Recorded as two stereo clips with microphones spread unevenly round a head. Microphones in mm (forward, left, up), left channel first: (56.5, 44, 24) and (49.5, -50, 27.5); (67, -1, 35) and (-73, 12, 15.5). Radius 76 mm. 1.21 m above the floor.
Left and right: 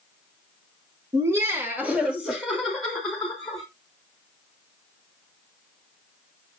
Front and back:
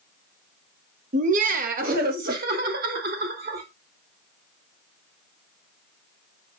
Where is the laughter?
155° right, 1.3 m; by 3.6 s 170° left, 3 m.